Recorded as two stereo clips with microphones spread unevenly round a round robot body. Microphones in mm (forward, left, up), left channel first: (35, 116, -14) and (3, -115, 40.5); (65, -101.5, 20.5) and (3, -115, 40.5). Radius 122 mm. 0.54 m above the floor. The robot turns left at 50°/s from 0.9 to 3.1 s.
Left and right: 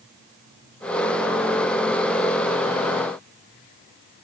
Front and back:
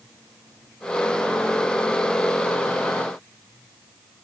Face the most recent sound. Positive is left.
No sound to turn to.